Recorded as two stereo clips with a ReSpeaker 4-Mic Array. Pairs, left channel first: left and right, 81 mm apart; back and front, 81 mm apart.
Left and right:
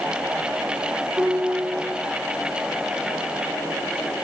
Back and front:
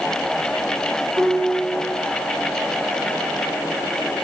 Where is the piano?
25° right, 2.5 m.